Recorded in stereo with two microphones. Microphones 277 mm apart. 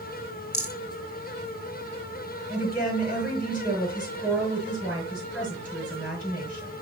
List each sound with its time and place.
0.5 s a rattle: 70° left (ahead or behind), 1.8 m
2.5 s a woman speaking: centre (ahead or behind), 5.5 m